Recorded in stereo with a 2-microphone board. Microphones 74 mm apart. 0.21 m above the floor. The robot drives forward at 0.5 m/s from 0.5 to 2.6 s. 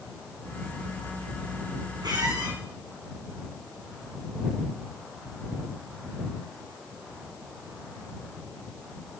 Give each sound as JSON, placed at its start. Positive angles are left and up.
{"t": 2.0, "sound": "a squeak", "side_deg": -85, "distance_m": 6.5}